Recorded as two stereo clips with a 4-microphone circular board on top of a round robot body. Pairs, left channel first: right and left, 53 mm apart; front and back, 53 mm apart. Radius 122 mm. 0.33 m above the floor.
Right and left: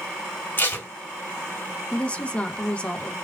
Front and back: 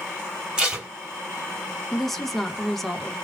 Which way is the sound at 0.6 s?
115° right.